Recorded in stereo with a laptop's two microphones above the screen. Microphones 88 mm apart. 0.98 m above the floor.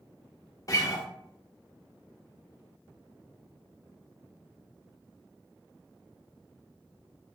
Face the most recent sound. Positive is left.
turn(degrees=40)  # may be behind; listen again after turning